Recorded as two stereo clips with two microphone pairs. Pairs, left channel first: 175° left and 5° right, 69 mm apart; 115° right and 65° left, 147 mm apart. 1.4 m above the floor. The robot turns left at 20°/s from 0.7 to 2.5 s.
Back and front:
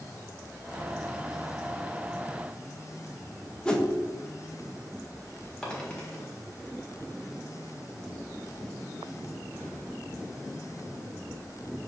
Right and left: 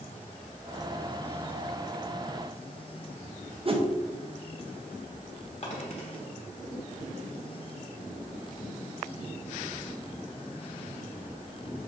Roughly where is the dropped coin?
Behind right.